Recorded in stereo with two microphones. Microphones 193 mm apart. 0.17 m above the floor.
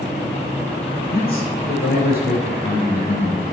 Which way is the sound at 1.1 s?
55° left (ahead or behind).